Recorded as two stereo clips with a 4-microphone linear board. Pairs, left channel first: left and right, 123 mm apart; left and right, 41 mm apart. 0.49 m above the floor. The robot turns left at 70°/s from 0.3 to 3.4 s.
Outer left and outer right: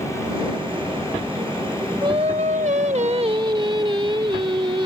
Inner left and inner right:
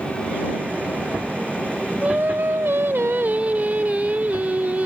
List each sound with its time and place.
2.0 s singing: 40° right; by 4.9 s 140° right